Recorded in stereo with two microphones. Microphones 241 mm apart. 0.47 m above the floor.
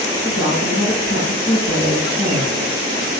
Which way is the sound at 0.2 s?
15° left (ahead or behind).